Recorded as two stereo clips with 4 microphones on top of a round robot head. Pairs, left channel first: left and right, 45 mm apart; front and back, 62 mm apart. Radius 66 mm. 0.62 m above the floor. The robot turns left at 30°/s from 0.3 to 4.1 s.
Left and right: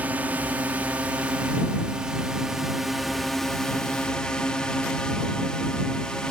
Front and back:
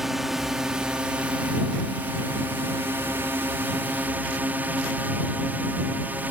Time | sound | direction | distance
0.0 | a drone | 95° right | ?